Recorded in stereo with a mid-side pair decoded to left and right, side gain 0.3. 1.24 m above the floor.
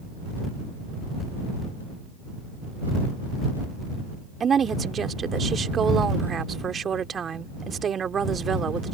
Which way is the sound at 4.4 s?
65° right.